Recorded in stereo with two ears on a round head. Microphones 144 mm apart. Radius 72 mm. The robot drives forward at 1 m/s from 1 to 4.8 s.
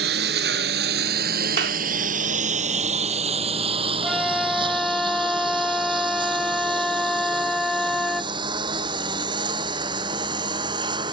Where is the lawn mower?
70° right (ahead or behind); by 11.1 s 30° right (ahead or behind).